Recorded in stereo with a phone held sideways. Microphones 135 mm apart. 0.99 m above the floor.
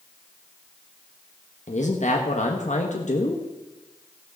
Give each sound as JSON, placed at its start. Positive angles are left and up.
{"t": 1.7, "sound": "a man speaking", "side_deg": 60, "distance_m": 1.3}